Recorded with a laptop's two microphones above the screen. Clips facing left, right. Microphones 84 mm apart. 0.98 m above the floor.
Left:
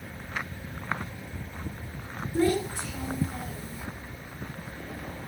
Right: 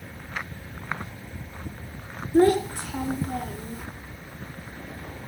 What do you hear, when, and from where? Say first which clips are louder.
2.3 s a child speaking: right 7 dB; 50° right (ahead or behind), 2 m